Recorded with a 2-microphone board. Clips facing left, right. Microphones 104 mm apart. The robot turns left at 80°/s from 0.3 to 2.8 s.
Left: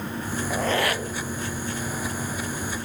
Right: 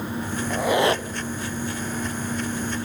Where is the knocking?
I don't hear knocking.